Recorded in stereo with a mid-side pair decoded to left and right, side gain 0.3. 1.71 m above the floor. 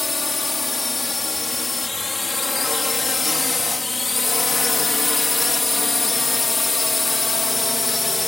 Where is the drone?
35° left; by 8.3 s 30° left.